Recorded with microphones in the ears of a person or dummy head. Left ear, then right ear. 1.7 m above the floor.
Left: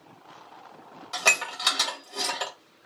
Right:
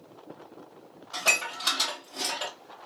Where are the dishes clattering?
55° left (ahead or behind), 1.8 m.